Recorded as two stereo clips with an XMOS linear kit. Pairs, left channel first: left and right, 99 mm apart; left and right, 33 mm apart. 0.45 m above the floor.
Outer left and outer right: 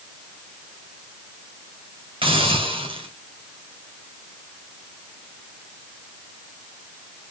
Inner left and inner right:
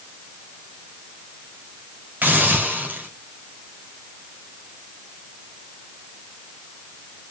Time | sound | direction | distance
2.2 | a hiss | 65° right (ahead or behind) | 3 m